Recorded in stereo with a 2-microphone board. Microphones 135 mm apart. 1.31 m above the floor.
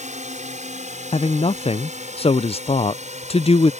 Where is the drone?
60° right (ahead or behind).